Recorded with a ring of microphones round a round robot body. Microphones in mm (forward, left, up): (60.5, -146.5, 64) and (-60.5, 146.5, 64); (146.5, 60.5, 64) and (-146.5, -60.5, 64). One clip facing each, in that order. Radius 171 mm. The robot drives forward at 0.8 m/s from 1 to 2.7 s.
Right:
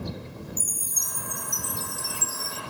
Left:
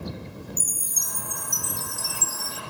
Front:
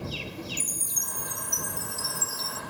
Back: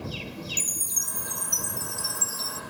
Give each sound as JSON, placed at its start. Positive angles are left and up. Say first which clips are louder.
{"t": 0.6, "sound": "a chime", "louder": "even, even", "azimuth_deg": 135}